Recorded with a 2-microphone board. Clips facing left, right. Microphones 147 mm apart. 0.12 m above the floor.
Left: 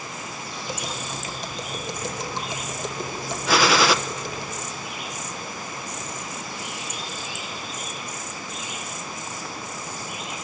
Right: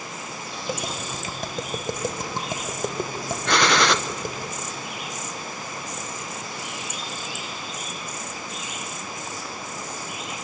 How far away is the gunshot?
About 0.8 m.